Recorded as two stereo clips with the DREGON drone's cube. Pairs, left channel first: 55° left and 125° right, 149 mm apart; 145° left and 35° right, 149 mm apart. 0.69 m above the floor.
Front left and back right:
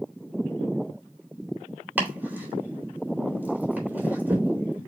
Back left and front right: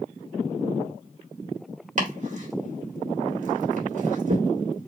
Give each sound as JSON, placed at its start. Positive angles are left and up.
{"t": 2.0, "sound": "chopping", "azimuth_deg": -50, "distance_m": 1.9}